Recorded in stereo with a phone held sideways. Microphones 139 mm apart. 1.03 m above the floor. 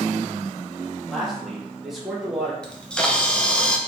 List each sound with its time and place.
1.1 s a man speaking: centre (ahead or behind), 1.3 m
2.6 s a camera shutter: 5° left (ahead or behind), 0.7 m